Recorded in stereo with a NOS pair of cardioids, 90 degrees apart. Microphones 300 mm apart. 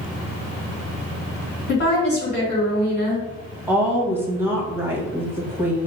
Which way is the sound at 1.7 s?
35° left.